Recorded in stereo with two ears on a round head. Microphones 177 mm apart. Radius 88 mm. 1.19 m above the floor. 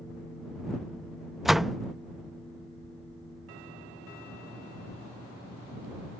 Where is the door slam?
Centre (ahead or behind).